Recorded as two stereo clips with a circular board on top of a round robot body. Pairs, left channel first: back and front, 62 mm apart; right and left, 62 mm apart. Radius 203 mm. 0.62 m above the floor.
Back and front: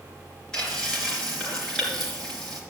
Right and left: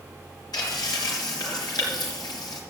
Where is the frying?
100° right, 4.5 m.